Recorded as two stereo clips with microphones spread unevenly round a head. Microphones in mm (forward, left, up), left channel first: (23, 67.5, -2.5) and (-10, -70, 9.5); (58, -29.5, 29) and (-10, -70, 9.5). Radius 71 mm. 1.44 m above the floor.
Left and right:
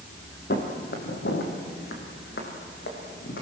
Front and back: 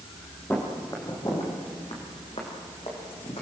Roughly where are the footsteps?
Left.